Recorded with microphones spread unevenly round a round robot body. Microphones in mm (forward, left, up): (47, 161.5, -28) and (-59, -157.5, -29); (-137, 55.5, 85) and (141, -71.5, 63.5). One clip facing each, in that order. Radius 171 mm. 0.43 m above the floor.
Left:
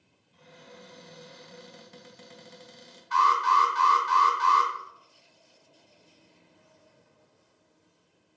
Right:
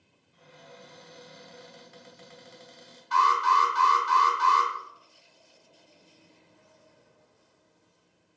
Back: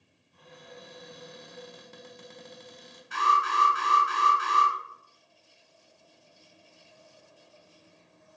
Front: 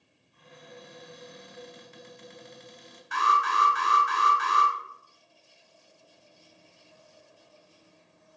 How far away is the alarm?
About 3 m.